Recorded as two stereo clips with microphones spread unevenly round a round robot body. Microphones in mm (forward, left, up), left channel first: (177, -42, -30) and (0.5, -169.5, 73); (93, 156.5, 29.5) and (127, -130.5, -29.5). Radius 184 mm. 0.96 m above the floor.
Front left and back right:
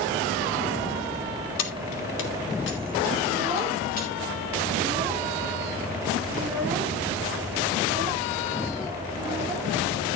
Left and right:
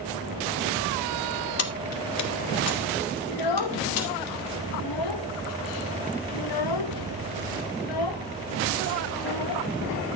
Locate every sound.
1.6 s keys jangling: 55° left, 1.5 m; by 4.3 s 100° left, 2.5 m
3.3 s a child speaking: 125° left, 1.0 m